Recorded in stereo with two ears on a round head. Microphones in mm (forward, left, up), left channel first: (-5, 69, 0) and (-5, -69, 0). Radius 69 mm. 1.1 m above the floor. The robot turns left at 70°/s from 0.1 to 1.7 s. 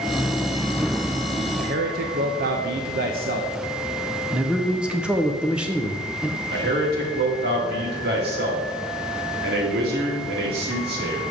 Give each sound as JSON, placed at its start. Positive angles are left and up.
{"t": 1.6, "sound": "a man speaking", "side_deg": -55, "distance_m": 0.6}
{"t": 4.3, "sound": "a man speaking", "side_deg": -5, "distance_m": 0.6}
{"t": 6.5, "sound": "a man speaking", "side_deg": -70, "distance_m": 2.0}